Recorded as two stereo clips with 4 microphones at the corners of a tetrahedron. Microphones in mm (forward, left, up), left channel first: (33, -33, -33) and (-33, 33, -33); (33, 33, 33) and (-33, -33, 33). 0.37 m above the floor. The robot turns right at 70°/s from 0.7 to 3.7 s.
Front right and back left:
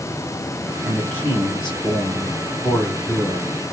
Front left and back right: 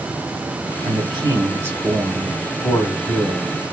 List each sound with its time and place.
0.8 s a man speaking: 130° right, 2 m; by 3.6 s 60° left, 2 m